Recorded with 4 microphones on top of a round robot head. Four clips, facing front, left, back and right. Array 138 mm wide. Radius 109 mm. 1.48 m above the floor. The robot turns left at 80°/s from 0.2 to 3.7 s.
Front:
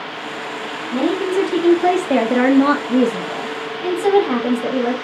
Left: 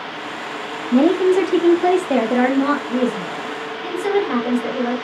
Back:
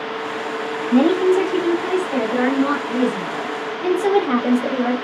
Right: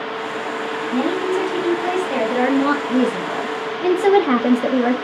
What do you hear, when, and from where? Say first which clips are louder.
0.9 s a woman speaking: left 7 dB, back 4 dB; 130° left, 1.2 m; by 4.9 s 95° right, 1.2 m